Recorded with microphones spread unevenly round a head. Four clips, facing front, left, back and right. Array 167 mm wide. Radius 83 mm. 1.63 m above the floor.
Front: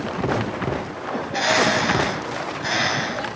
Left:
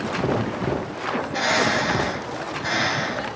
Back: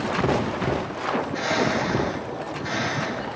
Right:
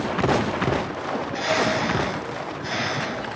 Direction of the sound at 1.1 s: 25° left.